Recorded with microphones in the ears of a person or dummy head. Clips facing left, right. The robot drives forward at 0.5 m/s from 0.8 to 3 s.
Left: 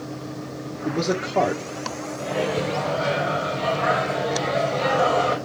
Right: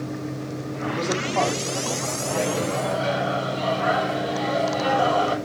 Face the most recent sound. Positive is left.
turn(degrees=30)  # may be behind; listen again after turning